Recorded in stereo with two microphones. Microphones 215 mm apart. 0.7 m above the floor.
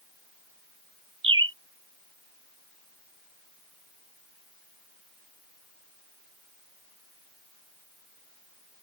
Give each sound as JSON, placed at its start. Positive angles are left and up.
{"t": 1.2, "sound": "a bird", "side_deg": -60}